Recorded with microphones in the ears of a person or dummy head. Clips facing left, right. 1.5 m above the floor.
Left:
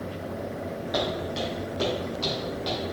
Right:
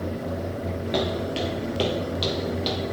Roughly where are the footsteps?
Right.